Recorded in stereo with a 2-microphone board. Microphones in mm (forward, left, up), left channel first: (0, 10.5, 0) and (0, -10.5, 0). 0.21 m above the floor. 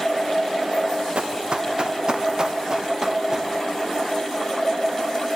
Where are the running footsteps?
50° right (ahead or behind), 2.5 m; by 3.5 s 20° right (ahead or behind), 2.5 m.